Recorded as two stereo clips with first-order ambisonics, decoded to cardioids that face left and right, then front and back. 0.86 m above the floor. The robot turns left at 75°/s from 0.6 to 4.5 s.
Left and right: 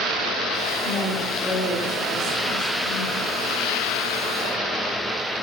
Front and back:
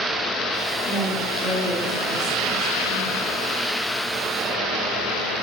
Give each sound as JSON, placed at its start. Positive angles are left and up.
{"t": 0.8, "sound": "a woman speaking", "azimuth_deg": 40, "distance_m": 3.0}